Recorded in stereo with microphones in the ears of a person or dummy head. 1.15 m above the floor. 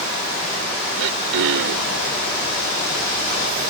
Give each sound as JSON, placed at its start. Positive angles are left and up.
{"t": 1.0, "sound": "throat clearing", "side_deg": -75}